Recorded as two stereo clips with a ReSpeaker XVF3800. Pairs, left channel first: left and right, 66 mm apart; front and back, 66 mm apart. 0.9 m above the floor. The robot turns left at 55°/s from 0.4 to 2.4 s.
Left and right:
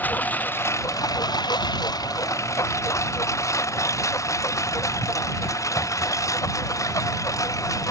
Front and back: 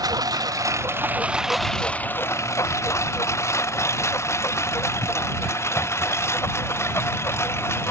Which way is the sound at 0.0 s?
155° left.